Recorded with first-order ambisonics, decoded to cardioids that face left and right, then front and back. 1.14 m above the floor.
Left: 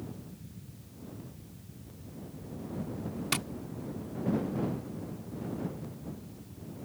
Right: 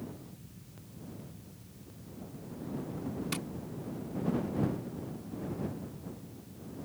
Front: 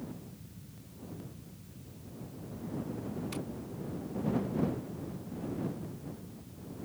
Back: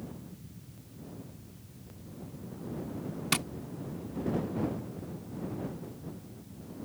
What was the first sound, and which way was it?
Tapping, 155° left.